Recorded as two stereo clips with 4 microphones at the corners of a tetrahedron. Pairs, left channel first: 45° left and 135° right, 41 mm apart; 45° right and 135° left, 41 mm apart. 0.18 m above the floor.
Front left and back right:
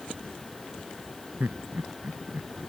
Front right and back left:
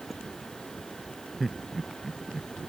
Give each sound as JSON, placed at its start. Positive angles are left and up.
{"t": 1.4, "sound": "laughter", "azimuth_deg": -130}